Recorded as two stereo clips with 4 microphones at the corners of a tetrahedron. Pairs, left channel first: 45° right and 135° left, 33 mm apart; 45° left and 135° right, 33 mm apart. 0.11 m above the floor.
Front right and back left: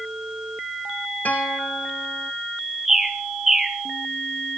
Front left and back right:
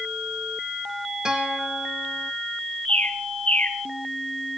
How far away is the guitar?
About 3.5 m.